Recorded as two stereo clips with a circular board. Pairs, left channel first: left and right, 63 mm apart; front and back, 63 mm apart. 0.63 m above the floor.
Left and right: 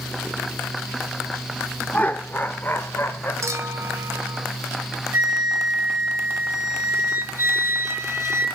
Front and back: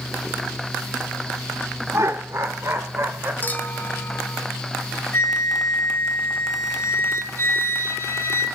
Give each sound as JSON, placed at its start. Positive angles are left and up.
{"t": 1.9, "sound": "laughter", "azimuth_deg": 150, "distance_m": 1.3}
{"t": 3.4, "sound": "a clink", "azimuth_deg": -60, "distance_m": 2.0}
{"t": 5.1, "sound": "a flute", "azimuth_deg": -45, "distance_m": 4.5}